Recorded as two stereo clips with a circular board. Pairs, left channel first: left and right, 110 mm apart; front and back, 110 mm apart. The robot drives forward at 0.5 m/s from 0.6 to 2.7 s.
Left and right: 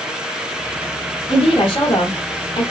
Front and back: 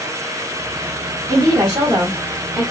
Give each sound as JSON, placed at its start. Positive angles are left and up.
{"t": 1.3, "sound": "a woman speaking", "azimuth_deg": 120, "distance_m": 2.0}